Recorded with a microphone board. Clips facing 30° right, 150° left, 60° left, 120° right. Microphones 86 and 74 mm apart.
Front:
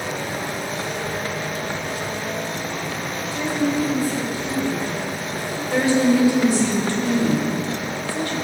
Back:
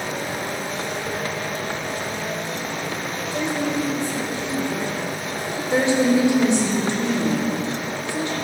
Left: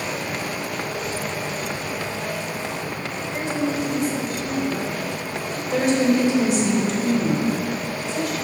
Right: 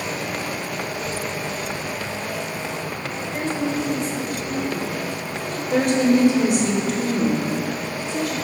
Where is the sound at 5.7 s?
145° right, 3 m.